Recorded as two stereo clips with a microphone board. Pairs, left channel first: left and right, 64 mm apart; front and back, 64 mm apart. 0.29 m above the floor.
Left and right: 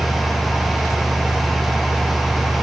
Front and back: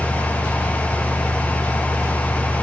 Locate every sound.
Only background noise.